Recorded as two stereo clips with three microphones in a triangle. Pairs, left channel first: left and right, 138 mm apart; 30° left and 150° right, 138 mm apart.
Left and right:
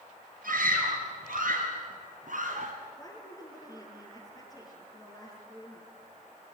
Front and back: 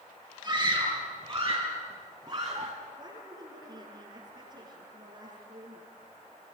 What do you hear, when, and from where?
0.4 s a scream: 85° right, 5.5 m; by 2.7 s 95° right, 2.5 m
3.0 s a woman speaking: 155° left, 5 m